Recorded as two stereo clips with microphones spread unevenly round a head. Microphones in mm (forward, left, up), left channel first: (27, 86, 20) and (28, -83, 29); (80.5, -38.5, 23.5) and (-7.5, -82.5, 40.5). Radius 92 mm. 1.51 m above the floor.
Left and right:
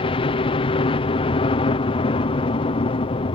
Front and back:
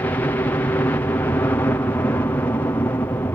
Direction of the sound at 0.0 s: 70° left.